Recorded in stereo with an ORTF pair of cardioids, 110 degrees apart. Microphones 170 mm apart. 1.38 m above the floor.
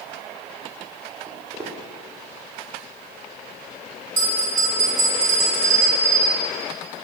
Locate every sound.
1.3 s footsteps: 45° right, 6 m
4.2 s a bell: 55° right, 6 m